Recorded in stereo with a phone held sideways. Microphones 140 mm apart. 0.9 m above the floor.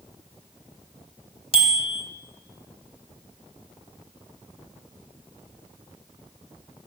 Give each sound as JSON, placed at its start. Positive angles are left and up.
{"t": 1.5, "sound": "a bicycle bell", "side_deg": 45, "distance_m": 3.0}